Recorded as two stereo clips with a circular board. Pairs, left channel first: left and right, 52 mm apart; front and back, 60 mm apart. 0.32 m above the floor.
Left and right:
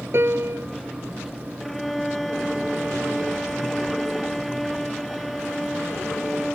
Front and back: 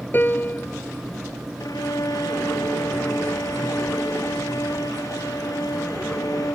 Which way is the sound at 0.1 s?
55° right.